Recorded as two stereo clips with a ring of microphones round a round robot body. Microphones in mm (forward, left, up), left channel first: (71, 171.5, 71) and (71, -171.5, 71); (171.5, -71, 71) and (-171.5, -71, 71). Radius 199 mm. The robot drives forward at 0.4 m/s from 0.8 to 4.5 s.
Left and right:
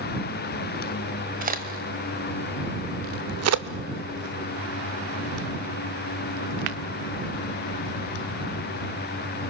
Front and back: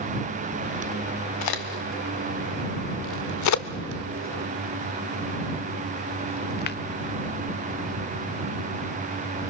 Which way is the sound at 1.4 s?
25° right.